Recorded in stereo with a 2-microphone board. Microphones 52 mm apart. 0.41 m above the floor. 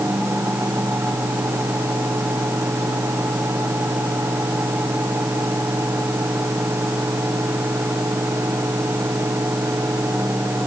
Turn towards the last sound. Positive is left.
No sound to turn to.